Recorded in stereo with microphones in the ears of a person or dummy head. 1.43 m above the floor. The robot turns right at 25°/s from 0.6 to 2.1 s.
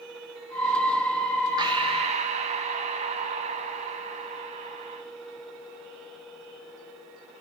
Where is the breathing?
25° right (ahead or behind), 1.3 m; by 5.0 s 40° right (ahead or behind), 1.3 m.